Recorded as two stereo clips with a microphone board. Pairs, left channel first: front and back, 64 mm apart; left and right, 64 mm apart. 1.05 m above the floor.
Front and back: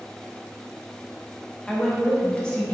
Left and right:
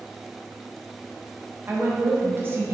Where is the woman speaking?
70° right, 0.6 m.